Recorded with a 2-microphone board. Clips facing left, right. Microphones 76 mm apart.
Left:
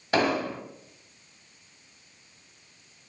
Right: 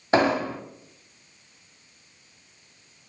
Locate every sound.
0.1 s an explosion: 25° right (ahead or behind), 0.6 m